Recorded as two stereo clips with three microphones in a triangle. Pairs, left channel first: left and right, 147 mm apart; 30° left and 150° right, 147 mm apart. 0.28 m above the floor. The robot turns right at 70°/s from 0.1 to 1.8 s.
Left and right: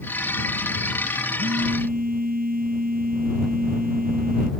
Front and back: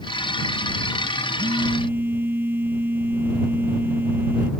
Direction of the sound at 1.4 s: 105° right.